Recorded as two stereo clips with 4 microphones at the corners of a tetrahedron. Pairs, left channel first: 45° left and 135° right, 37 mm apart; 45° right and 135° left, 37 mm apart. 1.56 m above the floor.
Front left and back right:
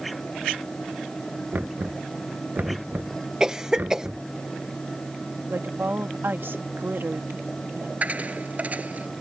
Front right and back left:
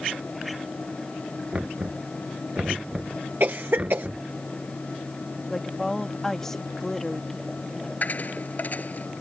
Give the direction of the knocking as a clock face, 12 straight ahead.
6 o'clock.